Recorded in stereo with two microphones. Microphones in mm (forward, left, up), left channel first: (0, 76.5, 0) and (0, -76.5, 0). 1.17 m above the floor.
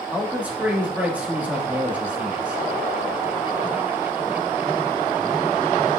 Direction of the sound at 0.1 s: 10° right (ahead or behind).